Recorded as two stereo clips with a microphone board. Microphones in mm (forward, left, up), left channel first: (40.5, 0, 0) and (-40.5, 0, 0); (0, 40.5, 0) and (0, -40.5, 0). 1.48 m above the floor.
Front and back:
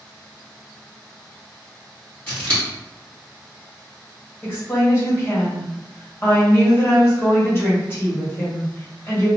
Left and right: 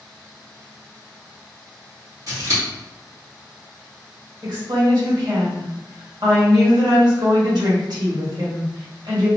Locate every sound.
2.3 s scissors: 65° right, 1.8 m
4.4 s a woman speaking: 60° right, 1.5 m